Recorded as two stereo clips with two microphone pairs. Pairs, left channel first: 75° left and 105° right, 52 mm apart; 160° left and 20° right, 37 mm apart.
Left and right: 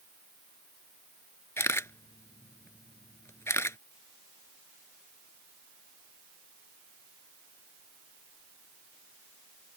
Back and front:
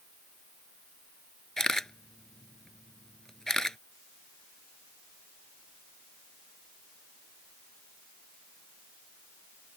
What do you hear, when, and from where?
1.6 s a camera shutter: 85° left